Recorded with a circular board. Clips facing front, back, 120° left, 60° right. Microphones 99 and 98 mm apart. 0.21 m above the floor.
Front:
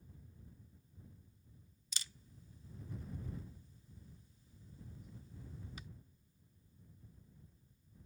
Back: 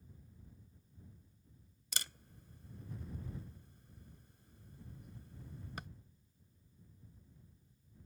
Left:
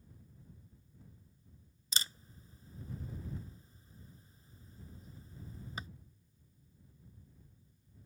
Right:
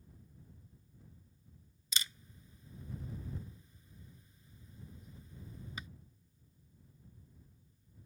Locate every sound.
1.9 s a camera shutter: 175° left